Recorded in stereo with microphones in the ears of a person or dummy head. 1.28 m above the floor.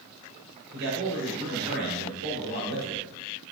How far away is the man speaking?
About 4 m.